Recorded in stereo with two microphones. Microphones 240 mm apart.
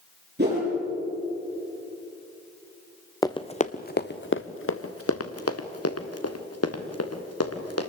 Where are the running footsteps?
15° left (ahead or behind), 0.9 m; by 7.9 s 85° left, 3 m.